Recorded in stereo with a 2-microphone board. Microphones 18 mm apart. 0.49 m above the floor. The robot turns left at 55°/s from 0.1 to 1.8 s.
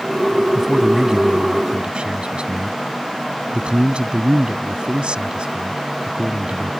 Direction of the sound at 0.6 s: 5° left.